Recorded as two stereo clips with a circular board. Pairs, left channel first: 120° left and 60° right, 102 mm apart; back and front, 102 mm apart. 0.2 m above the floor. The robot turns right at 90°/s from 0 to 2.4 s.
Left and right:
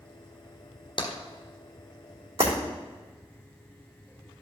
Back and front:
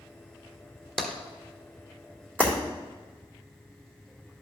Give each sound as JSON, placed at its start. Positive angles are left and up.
{"t": 1.0, "sound": "tapping", "azimuth_deg": 90, "distance_m": 1.2}
{"t": 2.4, "sound": "breaking glass", "azimuth_deg": -75, "distance_m": 2.5}